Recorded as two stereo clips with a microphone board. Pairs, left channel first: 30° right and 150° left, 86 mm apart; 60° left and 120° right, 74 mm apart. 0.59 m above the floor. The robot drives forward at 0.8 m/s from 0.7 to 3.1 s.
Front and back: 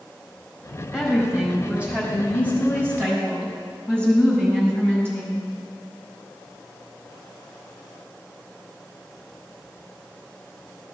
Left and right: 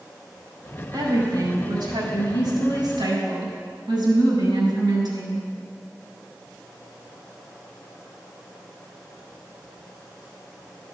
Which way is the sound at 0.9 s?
125° right.